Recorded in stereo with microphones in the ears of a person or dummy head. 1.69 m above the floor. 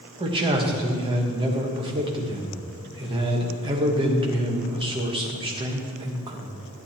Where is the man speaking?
25° right (ahead or behind), 1.3 m.